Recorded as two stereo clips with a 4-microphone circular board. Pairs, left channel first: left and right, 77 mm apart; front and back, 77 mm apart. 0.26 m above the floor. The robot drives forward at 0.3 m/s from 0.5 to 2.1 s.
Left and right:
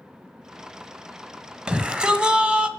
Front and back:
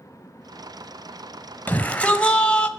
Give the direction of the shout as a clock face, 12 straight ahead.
1 o'clock.